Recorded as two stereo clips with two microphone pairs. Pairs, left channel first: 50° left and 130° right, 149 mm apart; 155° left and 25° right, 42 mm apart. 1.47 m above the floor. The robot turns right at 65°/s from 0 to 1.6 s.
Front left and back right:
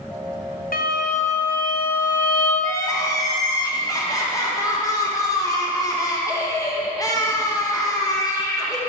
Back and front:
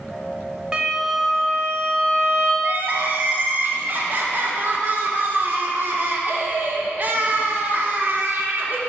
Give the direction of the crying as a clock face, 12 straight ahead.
12 o'clock.